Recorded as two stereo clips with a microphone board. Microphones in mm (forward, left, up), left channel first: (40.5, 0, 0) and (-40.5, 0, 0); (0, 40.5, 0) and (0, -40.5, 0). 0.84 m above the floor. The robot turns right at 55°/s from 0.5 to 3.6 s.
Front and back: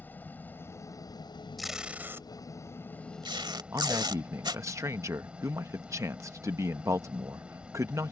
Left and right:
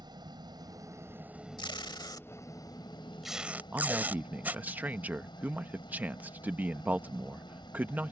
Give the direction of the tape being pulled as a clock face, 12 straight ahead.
9 o'clock.